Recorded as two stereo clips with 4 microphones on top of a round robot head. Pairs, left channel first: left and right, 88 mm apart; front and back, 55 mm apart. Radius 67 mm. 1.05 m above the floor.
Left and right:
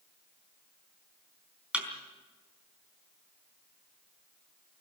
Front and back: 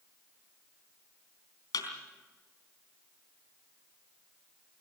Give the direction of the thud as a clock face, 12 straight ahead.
12 o'clock.